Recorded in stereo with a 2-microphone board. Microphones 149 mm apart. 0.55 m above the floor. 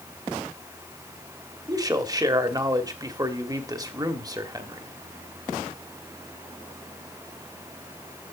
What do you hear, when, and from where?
1.7 s a man speaking: 25° right (ahead or behind), 1.2 m